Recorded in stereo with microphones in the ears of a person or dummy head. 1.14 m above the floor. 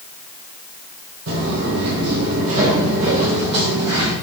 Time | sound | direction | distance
1.3 | footsteps | 60° right (ahead or behind) | 2.5 m